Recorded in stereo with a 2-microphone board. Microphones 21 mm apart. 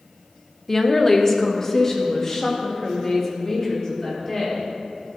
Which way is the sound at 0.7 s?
15° left (ahead or behind).